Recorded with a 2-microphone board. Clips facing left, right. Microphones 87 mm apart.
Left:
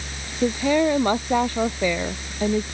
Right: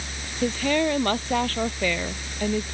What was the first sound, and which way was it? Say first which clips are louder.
A woman speaking: left 4 dB; 15° left (ahead or behind).